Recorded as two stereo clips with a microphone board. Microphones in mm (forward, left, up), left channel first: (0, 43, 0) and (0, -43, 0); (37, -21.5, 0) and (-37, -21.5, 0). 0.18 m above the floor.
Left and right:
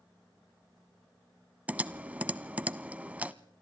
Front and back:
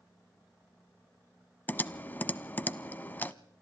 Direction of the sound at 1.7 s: 35° right.